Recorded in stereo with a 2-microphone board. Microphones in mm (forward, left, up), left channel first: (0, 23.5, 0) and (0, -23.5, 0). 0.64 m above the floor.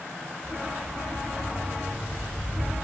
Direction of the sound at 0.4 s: 10° right (ahead or behind).